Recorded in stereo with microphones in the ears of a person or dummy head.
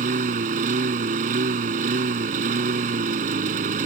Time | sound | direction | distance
0.0 | a lawn mower | 40° right (ahead or behind) | ?